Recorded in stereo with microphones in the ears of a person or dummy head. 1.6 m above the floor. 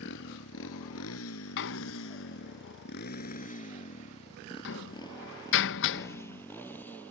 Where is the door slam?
60° left (ahead or behind).